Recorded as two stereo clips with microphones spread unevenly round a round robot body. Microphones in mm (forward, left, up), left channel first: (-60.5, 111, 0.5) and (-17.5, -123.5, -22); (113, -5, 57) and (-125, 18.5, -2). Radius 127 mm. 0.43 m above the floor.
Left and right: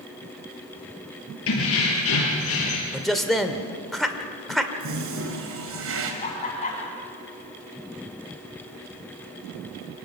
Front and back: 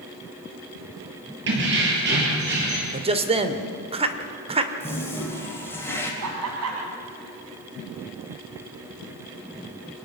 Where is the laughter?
160° left, 3 m.